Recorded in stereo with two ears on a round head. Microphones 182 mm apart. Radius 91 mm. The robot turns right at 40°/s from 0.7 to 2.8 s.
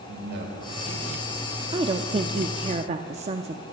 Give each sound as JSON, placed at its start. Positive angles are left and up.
{"t": 0.1, "sound": "a man speaking", "side_deg": -60, "distance_m": 3.5}
{"t": 1.7, "sound": "a woman speaking", "azimuth_deg": -130, "distance_m": 0.7}